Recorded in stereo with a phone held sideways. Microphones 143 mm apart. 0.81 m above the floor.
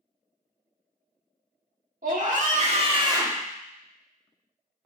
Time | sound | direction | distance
2.0 | a scream | 65° right (ahead or behind) | 1.5 m